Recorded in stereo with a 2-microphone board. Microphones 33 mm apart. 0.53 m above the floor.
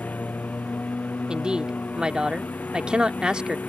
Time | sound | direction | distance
0.0 | a lawn mower | 60° left (ahead or behind) | ?
1.3 | a woman speaking | 30° right (ahead or behind) | ?